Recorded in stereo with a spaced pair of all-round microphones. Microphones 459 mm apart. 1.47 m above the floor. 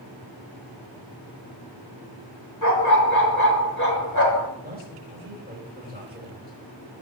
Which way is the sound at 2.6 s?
40° left (ahead or behind).